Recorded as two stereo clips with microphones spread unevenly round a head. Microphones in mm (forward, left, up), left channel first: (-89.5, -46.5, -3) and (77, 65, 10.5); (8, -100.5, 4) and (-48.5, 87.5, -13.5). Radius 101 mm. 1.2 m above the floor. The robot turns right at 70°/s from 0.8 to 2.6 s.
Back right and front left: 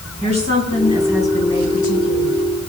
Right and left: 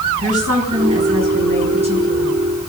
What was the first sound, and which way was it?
A woman speaking, 90° left.